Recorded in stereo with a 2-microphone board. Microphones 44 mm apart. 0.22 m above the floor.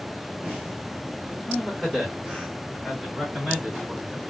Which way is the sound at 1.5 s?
10° left (ahead or behind).